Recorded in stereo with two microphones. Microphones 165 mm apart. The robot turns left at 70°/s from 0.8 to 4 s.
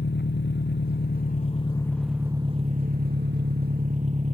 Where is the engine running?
90° left; by 4.3 s 135° right.